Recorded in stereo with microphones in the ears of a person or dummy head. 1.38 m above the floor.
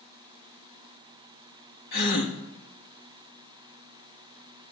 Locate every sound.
1.9 s a gasp: 55° left (ahead or behind), 1.8 m